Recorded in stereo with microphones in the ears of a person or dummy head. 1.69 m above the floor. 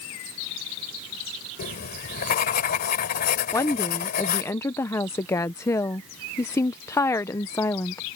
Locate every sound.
1.6 s writing: 50° left (ahead or behind)
3.5 s a woman speaking: 15° left (ahead or behind)